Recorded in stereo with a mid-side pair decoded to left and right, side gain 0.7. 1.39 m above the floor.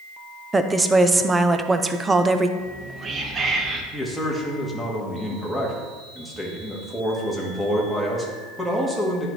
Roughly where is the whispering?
Ahead right.